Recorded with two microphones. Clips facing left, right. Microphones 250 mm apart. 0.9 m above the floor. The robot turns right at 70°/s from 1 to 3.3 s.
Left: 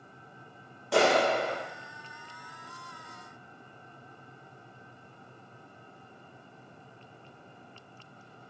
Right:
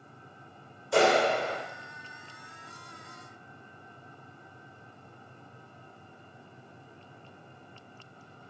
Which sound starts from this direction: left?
A clap, at 0.9 s.